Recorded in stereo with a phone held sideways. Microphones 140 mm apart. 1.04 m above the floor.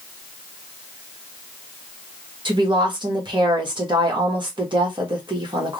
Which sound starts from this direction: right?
A woman speaking, at 2.5 s.